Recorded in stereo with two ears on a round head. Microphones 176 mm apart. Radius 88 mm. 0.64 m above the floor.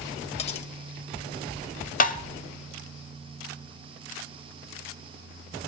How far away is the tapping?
About 0.9 m.